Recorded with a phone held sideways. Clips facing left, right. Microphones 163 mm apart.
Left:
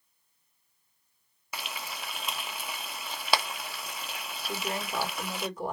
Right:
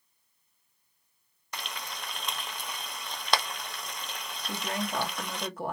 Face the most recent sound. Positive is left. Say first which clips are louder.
# right 1 dB
turn(degrees=-60)  # may be behind; listen again after turning